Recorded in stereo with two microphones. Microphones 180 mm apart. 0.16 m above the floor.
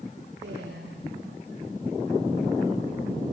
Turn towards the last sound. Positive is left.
turn(degrees=-75)  # may be behind; listen again after turning